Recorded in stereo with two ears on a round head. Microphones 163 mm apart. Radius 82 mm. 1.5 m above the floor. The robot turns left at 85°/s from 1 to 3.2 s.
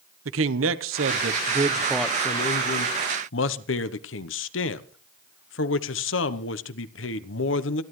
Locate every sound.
0.2 s a man speaking: 100° right, 0.9 m; by 7.8 s 75° left, 0.9 m